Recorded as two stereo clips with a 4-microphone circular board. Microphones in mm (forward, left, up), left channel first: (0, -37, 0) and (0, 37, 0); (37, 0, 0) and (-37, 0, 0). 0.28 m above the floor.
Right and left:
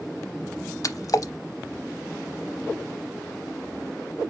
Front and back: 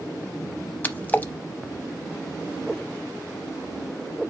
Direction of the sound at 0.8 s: 65° right.